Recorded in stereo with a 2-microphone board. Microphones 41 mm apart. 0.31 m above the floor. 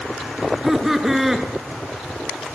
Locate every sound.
0.4 s laughter: 5° right (ahead or behind), 3.5 m